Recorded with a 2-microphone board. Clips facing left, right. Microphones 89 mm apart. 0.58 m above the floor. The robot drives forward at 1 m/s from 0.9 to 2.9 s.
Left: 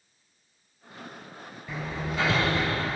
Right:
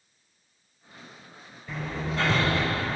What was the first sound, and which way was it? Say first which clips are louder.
Hammering: right 1 dB; 5° left (ahead or behind).